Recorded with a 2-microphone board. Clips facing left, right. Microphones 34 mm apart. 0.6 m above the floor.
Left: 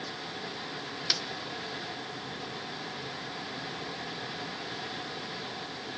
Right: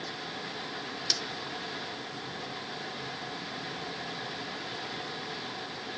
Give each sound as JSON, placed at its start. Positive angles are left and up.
{"t": 1.1, "sound": "a snare drum", "side_deg": 20, "distance_m": 0.7}